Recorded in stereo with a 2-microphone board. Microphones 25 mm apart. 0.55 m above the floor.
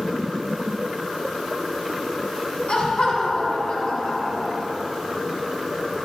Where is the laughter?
60° left (ahead or behind), 5 m.